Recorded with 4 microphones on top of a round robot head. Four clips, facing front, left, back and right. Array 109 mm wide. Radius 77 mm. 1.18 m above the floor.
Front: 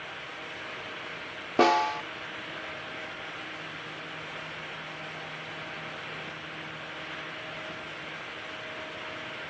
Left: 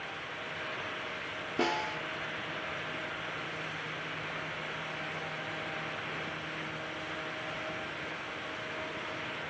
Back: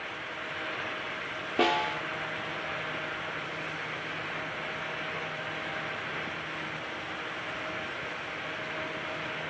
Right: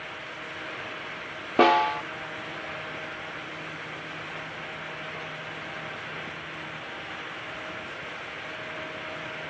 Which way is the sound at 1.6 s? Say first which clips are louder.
Right 13 dB, front 5 dB; 70° right.